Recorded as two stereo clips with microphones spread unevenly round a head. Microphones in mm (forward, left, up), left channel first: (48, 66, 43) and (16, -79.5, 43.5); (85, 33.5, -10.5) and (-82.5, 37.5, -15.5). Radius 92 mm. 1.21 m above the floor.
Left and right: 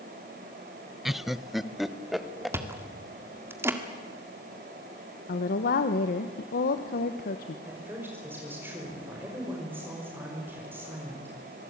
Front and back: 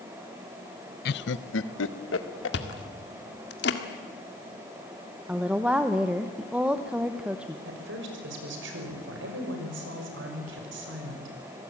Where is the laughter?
15° right, 0.6 m.